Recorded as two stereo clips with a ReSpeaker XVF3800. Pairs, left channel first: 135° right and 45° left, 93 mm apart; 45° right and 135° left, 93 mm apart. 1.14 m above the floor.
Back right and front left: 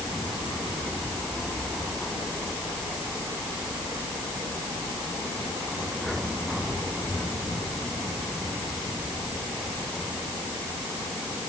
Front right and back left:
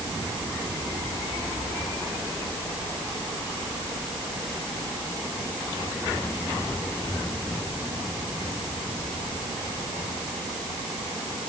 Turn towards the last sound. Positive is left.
No sound to turn to.